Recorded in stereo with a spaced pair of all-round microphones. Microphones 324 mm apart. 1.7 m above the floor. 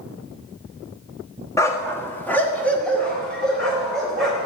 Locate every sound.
1.6 s a dog barking: 10° left (ahead or behind), 1.2 m; by 4.5 s centre (ahead or behind), 4 m